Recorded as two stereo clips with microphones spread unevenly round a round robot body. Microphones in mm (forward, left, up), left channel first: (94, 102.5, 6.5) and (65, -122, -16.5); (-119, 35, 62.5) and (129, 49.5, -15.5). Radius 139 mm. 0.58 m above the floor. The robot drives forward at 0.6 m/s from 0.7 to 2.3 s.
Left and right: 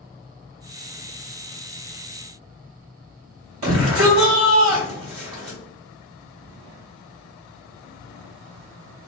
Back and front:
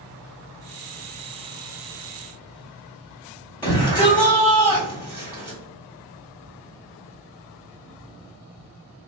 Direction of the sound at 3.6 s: 100° right.